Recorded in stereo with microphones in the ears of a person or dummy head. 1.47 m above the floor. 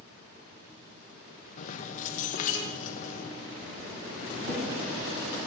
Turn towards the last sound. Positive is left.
turn(degrees=-70)  # may be behind; listen again after turning